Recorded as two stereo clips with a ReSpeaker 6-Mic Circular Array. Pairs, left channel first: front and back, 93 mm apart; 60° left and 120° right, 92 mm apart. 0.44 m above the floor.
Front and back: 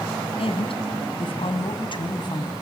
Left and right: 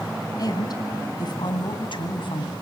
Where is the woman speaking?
15° left, 3 m; by 2.5 s 35° left, 2.5 m.